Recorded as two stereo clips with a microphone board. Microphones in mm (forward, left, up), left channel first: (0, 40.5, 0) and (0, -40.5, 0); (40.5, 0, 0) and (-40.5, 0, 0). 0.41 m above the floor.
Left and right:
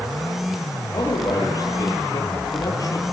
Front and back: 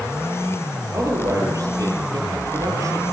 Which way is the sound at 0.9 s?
135° left.